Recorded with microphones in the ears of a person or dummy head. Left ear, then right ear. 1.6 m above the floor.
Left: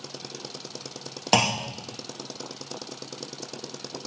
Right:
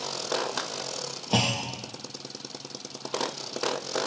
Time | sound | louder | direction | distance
1.3 | a clunk | left 4 dB | 45° left (ahead or behind) | 0.7 m